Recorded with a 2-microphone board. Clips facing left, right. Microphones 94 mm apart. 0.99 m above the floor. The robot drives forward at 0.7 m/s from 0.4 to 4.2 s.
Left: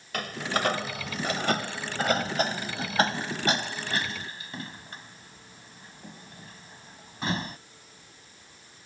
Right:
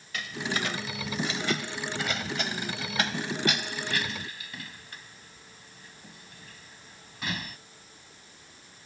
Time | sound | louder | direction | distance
0.1 | a door slam | left 3 dB | 60° left (ahead or behind) | ?